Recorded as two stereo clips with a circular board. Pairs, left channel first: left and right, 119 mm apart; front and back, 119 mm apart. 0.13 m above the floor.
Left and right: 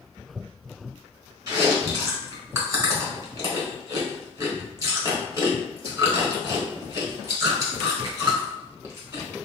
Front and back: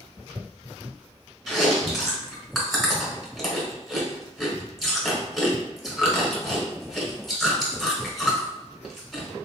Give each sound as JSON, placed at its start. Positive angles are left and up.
{"t": 1.5, "sound": "chewing", "azimuth_deg": -90, "distance_m": 1.1}